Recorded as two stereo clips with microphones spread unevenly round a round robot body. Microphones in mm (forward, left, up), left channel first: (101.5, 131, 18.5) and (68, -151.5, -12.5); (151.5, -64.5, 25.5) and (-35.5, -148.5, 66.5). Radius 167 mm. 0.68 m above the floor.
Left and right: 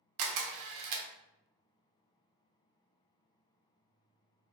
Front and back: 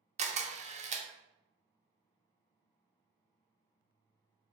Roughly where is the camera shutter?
Right.